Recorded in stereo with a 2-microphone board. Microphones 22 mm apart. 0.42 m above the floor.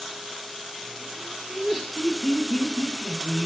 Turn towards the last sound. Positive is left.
turn(degrees=-40)  # may be behind; listen again after turning